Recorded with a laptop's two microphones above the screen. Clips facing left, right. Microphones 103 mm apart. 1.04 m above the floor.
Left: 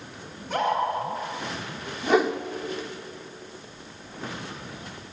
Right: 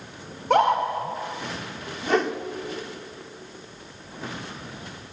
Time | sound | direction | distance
0.3 | a scream | 70° right (ahead or behind) | 4.5 m
2.0 | a whoosh | 5° left (ahead or behind) | 1.4 m